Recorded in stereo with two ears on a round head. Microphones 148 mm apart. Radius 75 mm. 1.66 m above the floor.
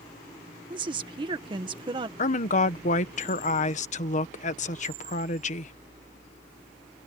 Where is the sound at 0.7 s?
30° right (ahead or behind).